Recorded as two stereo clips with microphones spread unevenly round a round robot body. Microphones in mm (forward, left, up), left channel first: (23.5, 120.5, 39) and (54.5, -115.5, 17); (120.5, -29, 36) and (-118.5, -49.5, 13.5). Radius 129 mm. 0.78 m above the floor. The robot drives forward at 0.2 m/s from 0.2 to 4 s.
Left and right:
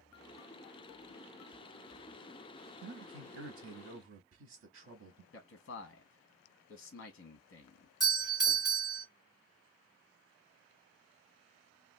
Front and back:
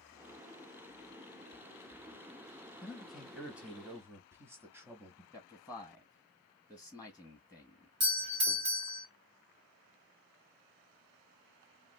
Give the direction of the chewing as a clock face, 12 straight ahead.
No chewing in this recording.